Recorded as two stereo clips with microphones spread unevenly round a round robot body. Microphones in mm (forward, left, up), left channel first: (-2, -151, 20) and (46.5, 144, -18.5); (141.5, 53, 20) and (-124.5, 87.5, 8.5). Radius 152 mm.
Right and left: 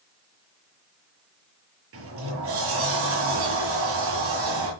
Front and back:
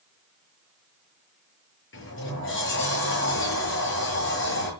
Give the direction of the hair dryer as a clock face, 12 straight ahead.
I don't hear a hair dryer.